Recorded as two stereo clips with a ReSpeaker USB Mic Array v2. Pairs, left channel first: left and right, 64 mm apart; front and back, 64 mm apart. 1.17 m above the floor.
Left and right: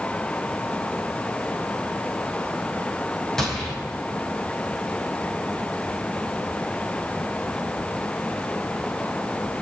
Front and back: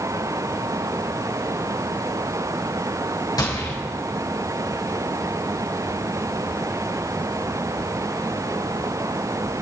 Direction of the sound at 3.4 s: 5° left.